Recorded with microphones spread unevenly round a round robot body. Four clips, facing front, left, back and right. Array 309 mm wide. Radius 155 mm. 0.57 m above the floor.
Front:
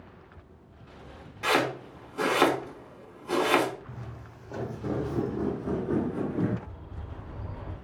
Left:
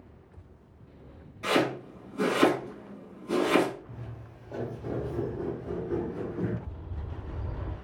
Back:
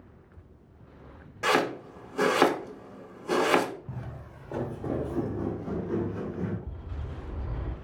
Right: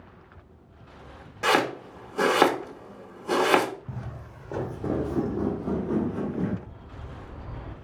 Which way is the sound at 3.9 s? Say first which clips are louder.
Right 5 dB, back 2 dB; 95° right.